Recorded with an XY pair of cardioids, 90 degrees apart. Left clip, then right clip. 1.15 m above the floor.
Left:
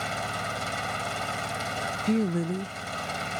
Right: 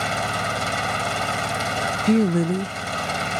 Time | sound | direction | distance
0.0 | an engine running | 50° right | ?
2.1 | a woman speaking | 60° right | ?